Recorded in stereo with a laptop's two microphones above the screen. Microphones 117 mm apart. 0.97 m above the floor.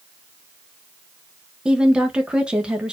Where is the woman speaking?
10° right (ahead or behind), 0.8 m.